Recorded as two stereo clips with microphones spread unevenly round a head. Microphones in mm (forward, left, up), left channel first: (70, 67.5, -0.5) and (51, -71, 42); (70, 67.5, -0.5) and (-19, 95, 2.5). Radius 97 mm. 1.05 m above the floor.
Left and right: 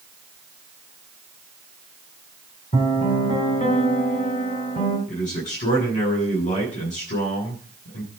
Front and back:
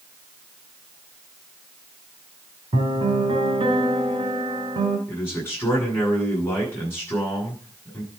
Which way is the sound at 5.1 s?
50° left.